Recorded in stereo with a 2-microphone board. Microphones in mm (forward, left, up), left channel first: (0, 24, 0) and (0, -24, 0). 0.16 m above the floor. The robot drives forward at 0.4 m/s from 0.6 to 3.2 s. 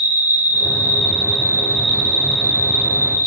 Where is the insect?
45° right (ahead or behind), 0.9 m; by 3.3 s 50° right (ahead or behind), 0.8 m.